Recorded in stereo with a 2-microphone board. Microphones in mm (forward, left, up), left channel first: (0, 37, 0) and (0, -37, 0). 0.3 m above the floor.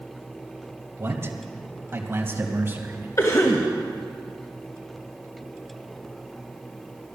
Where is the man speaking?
35° right (ahead or behind), 1.5 m; by 3.1 s 30° right (ahead or behind), 2.5 m.